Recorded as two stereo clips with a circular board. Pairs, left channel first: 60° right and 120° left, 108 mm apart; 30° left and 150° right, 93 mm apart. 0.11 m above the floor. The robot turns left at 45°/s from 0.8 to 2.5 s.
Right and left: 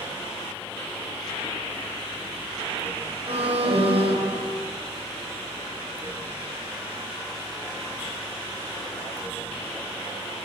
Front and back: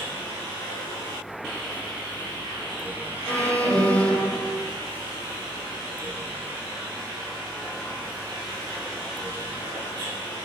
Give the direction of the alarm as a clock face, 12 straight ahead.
9 o'clock.